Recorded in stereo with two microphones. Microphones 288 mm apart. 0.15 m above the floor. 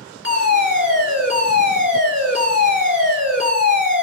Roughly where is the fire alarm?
Left.